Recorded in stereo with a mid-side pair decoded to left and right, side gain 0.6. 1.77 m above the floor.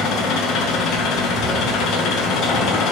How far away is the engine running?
About 1.7 m.